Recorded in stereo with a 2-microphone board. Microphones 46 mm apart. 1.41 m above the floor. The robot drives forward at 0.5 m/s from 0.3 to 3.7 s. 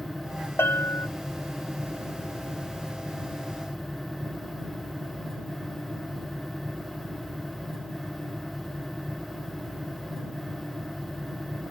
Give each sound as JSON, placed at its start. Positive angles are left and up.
{"t": 0.6, "sound": "a bell", "side_deg": 70}